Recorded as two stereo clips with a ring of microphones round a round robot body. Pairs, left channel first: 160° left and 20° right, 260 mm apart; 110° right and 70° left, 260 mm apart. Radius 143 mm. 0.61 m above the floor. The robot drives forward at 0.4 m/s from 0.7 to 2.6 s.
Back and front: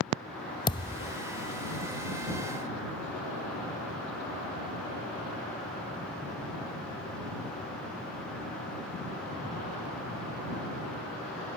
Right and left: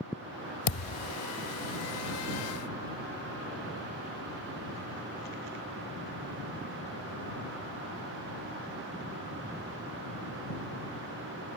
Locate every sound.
0.7 s a thud: 130° right; by 1.2 s 135° right